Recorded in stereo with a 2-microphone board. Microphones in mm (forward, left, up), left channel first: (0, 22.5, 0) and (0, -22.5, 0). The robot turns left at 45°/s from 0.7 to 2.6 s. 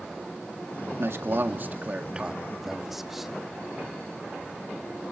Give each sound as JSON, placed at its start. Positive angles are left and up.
{"t": 1.0, "sound": "a man speaking", "azimuth_deg": -100, "distance_m": 1.8}